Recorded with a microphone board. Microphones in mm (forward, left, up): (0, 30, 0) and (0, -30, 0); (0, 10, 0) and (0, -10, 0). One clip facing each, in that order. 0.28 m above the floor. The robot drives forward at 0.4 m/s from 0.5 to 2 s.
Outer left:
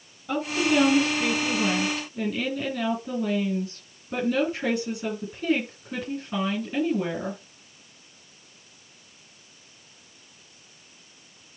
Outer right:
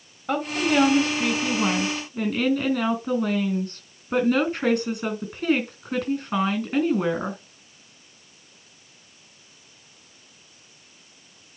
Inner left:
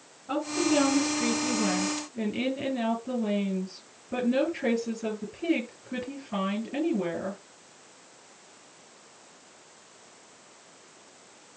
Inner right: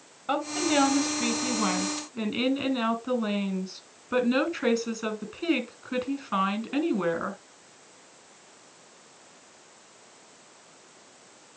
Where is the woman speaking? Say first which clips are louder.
Outer right 1 dB, even; 60° right (ahead or behind), 3.5 m; by 7.4 s 55° right (ahead or behind), 3.5 m.